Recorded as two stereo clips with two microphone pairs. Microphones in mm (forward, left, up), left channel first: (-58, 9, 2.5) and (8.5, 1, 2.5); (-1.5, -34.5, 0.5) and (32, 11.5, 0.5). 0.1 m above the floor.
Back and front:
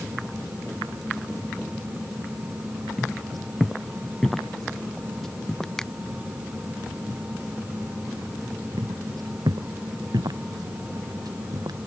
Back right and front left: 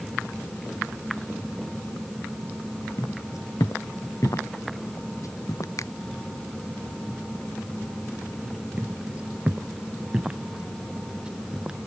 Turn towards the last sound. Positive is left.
turn(degrees=-25)